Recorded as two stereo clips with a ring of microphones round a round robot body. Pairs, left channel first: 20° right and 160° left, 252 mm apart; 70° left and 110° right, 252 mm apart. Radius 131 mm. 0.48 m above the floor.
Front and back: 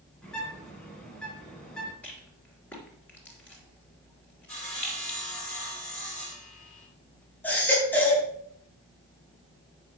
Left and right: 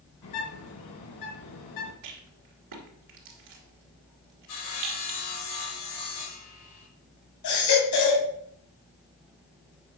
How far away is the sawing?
About 5 m.